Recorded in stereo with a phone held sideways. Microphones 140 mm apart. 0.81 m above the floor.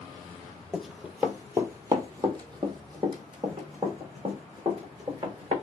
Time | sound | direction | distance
0.7 | running footsteps | centre (ahead or behind) | 0.8 m